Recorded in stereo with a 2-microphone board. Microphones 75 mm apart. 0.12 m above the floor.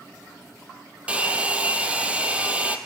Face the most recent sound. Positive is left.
turn(degrees=-15)  # may be behind; listen again after turning